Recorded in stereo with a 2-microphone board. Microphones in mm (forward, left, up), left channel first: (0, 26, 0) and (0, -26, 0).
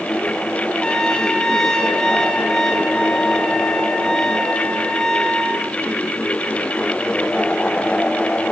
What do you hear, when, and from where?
0.8 s a trumpet: 10° left (ahead or behind), 3 m